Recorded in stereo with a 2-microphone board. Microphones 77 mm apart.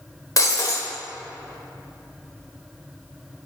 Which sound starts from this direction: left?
Breaking glass, at 0.4 s.